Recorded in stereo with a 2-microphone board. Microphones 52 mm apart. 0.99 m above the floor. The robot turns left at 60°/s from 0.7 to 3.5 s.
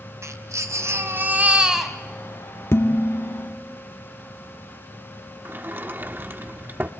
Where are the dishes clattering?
125° left, 1.4 m; by 3.5 s 75° left, 1.4 m.